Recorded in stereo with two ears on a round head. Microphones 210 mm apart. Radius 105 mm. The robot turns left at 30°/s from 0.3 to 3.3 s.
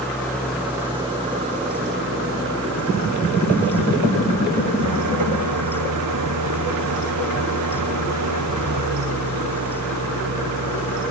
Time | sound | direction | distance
0.0 | an engine running | 5° left | ?